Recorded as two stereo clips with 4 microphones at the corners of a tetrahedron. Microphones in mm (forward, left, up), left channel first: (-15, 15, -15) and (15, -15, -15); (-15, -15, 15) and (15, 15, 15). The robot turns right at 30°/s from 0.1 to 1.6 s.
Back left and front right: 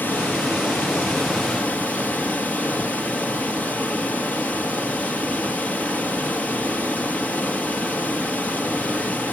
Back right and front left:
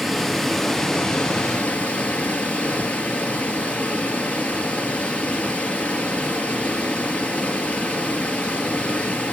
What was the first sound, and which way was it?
Running water, 130° left.